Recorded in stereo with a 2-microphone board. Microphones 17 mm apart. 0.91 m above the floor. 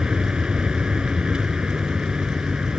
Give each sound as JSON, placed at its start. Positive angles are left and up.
{"t": 0.0, "sound": "a vehicle", "side_deg": -60}